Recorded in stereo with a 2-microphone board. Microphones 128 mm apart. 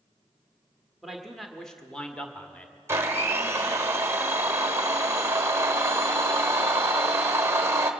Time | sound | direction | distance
1.0 | a man speaking | 5° right (ahead or behind) | 1.0 m
2.9 | a blender | 25° right (ahead or behind) | 0.9 m